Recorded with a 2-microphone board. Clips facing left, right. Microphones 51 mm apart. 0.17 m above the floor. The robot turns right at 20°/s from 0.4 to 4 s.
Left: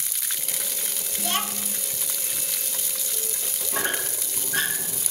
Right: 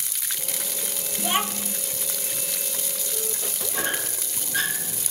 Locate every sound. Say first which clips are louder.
1.2 s a child speaking: right 3 dB; 15° right (ahead or behind), 0.6 m; by 1.8 s 20° right (ahead or behind), 0.6 m
3.7 s a squeak: left 2 dB; 60° left (ahead or behind), 4.5 m; by 5.0 s 55° left (ahead or behind), 4.5 m